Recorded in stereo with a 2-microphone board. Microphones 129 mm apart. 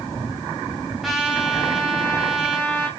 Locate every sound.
1.0 s a trumpet: centre (ahead or behind), 2.5 m